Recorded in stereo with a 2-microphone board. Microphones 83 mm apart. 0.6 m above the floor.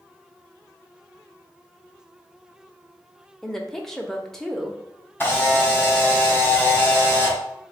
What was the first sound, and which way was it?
A woman speaking, 5° left (ahead or behind).